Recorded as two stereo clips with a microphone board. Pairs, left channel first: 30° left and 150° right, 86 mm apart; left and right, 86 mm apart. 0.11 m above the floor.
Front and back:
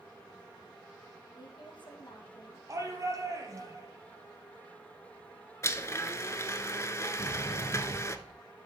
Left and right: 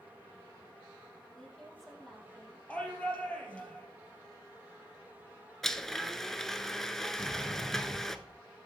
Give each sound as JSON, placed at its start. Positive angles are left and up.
{"t": 1.4, "sound": "a woman speaking", "azimuth_deg": 5, "distance_m": 3.0}
{"t": 2.7, "sound": "a shout", "azimuth_deg": 165, "distance_m": 3.0}
{"t": 5.6, "sound": "a blender", "azimuth_deg": 5, "distance_m": 0.6}
{"t": 7.2, "sound": "a sliding door", "azimuth_deg": 30, "distance_m": 5.0}